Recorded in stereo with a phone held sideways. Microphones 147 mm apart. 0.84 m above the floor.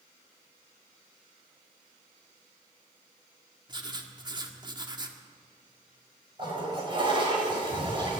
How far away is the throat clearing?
No throat clearing in this recording.